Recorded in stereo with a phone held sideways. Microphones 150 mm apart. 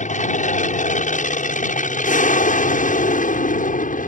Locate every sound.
0.0 s an aircraft: 60° left (ahead or behind); by 4.1 s 70° left (ahead or behind)